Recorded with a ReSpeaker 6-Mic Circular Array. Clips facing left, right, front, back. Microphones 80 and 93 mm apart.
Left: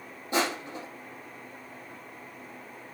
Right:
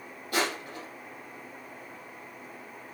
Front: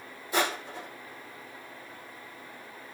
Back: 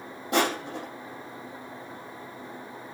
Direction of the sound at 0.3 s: 155° left.